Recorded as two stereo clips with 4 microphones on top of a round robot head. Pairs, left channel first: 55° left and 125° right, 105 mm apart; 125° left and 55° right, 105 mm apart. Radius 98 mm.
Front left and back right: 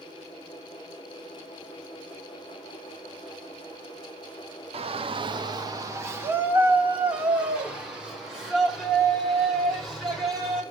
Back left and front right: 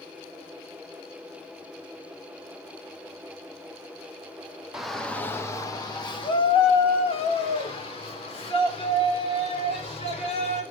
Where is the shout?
140° right, 1.4 m; by 10.6 s 145° left, 8 m.